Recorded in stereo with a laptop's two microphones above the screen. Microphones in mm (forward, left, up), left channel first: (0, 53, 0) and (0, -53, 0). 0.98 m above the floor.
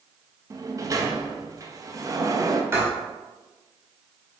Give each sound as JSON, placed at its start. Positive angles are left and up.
{"t": 0.5, "sound": "a sliding door", "side_deg": -35, "distance_m": 0.6}
{"t": 2.7, "sound": "writing", "side_deg": -25, "distance_m": 2.0}